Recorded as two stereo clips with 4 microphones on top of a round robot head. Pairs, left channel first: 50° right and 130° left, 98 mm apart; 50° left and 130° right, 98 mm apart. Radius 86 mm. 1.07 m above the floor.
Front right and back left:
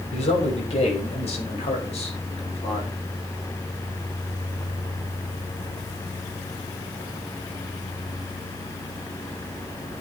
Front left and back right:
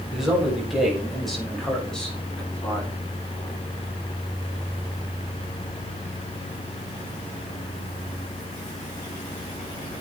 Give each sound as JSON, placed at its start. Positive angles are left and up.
{"t": 0.1, "sound": "a man speaking", "azimuth_deg": -45, "distance_m": 9.0}